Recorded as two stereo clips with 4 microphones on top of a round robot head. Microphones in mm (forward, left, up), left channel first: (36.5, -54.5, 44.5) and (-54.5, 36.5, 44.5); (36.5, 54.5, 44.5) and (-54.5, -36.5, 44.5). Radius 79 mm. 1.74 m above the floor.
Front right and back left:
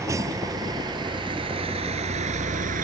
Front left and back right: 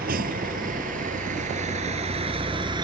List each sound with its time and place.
0.0 s a vehicle: 155° right; by 2.8 s 165° left